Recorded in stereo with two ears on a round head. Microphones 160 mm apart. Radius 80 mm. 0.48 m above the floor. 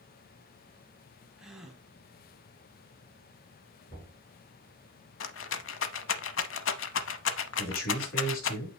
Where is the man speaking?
55° left (ahead or behind), 4 m.